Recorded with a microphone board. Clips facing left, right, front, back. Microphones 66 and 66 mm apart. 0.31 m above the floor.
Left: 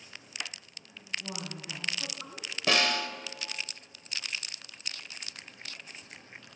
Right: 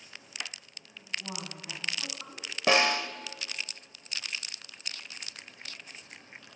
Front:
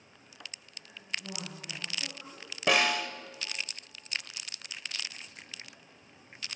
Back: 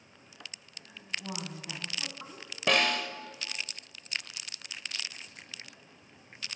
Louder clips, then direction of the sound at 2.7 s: Right 3 dB, front 1 dB; 75° right.